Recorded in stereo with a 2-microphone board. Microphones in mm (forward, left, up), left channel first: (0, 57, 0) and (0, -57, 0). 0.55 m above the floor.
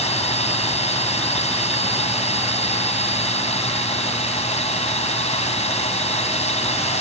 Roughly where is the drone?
Left.